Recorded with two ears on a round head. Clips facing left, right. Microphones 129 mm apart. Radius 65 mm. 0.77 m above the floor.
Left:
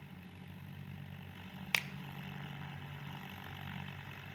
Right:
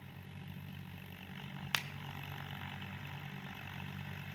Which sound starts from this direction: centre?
A finger snap, at 1.7 s.